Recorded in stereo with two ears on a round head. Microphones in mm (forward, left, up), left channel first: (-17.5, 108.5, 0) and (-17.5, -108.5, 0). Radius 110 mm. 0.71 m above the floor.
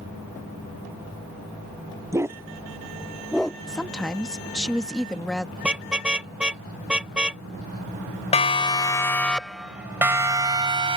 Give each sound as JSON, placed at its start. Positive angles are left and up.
{"t": 2.1, "sound": "a dog barking", "side_deg": -15}
{"t": 3.7, "sound": "a woman speaking", "side_deg": 5}
{"t": 5.6, "sound": "a car horn", "side_deg": -5}
{"t": 8.3, "sound": "a siren", "side_deg": 30}